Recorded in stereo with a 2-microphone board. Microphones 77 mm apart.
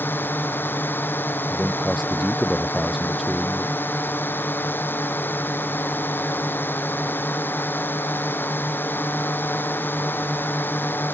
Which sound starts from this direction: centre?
A man speaking, at 1.5 s.